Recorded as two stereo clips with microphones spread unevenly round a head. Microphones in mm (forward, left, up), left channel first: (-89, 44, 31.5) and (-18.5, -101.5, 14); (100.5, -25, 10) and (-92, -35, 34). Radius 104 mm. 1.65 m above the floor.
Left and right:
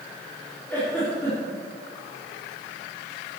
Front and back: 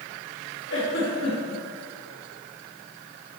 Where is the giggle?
35° left, 4.5 m.